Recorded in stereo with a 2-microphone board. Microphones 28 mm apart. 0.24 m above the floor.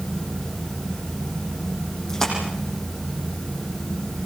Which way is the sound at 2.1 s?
20° left (ahead or behind).